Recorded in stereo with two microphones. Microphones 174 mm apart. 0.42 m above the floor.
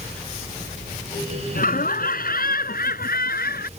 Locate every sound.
1.6 s laughter: 55° left (ahead or behind); by 3.7 s 65° left (ahead or behind)